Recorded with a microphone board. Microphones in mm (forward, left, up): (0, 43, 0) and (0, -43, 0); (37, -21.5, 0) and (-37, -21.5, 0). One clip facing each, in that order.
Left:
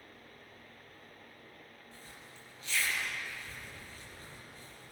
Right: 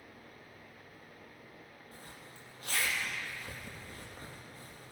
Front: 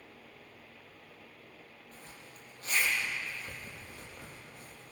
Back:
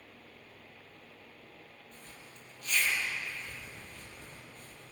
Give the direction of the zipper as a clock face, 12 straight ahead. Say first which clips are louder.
Right 2 dB, front 2 dB; 2 o'clock.